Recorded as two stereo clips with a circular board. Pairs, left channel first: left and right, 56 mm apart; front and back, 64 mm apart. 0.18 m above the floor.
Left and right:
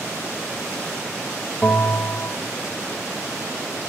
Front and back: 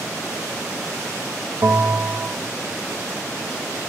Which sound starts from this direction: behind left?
A bell, at 1.6 s.